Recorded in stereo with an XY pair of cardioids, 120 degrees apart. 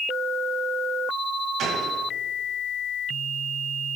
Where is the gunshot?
65° right, 2.5 m.